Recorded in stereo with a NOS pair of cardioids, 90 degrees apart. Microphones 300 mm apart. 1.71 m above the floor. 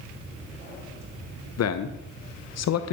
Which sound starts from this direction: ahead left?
A man speaking, at 1.6 s.